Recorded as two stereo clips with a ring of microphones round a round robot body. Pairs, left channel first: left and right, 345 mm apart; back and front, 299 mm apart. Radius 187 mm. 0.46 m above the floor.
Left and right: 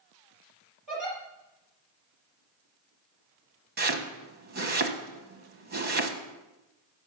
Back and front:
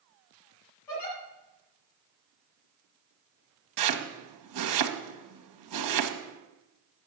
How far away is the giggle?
About 5.5 m.